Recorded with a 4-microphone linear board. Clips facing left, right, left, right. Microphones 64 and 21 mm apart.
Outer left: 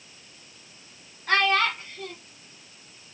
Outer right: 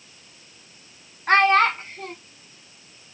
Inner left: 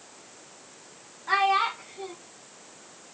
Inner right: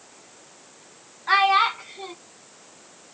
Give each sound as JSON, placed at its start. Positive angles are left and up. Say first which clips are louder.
{"t": 1.3, "sound": "a child speaking", "louder": "outer right 6 dB, inner right 5 dB", "side_deg": -40, "distance_m": 1.3}